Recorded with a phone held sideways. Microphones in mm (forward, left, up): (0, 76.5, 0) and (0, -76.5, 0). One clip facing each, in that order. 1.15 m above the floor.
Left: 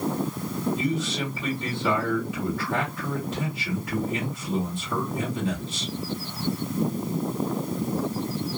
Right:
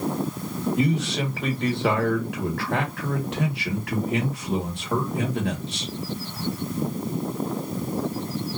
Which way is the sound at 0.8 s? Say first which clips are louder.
Right 3 dB; 70° right (ahead or behind).